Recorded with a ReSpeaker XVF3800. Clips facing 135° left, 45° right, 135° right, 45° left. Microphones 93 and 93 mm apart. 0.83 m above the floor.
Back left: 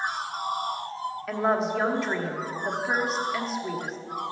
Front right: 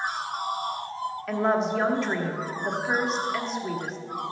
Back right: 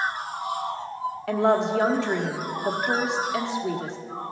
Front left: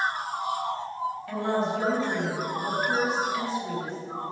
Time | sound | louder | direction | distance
1.3 | a woman speaking | front right 1 dB, back right 7 dB | 135° right | 1.3 m